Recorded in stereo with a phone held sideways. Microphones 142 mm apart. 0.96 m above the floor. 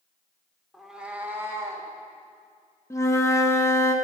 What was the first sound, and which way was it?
A cat meowing, centre (ahead or behind).